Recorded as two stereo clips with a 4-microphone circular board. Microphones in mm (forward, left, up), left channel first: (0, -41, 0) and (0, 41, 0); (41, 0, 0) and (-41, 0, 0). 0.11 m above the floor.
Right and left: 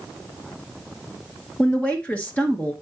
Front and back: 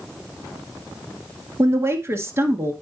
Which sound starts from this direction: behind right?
A woman speaking, at 1.6 s.